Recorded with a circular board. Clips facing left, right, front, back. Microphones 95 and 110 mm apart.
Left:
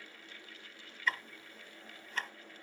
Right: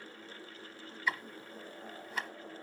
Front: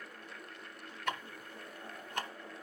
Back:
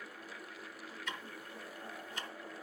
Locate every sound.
1.1 s ticking: 10° right, 0.8 m